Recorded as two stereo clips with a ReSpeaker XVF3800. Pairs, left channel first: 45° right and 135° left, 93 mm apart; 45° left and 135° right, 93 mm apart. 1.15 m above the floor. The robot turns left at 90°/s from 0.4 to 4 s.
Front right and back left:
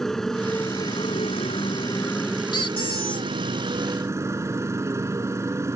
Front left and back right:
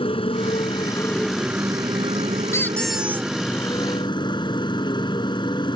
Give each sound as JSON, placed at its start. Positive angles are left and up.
{"t": 0.0, "sound": "a motorcycle", "azimuth_deg": 40}
{"t": 2.5, "sound": "a squeak", "azimuth_deg": -10}